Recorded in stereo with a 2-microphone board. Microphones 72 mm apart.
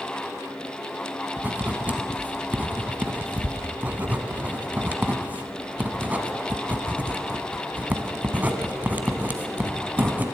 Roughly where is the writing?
Right.